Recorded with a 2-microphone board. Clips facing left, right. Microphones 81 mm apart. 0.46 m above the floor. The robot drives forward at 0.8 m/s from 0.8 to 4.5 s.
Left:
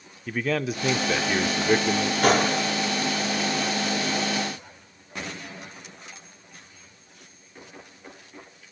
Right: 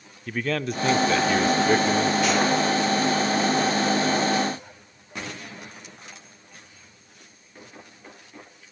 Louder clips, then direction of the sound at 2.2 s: Left 1 dB; 50° left (ahead or behind).